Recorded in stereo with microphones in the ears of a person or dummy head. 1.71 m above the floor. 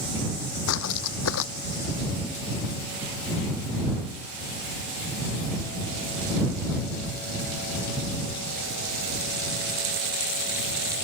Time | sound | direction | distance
0.7 | footsteps | 70° left (ahead or behind) | ?